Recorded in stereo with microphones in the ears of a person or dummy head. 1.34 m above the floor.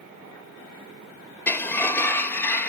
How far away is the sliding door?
About 1.3 m.